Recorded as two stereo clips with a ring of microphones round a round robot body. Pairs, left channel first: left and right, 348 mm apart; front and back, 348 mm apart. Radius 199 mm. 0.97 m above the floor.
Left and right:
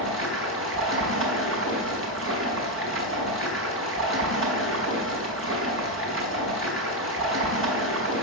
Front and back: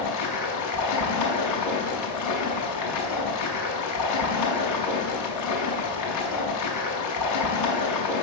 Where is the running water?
35° right, 5.5 m.